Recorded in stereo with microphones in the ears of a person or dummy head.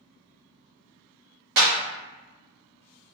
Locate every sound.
1.6 s a clap: 60° right (ahead or behind), 1.1 m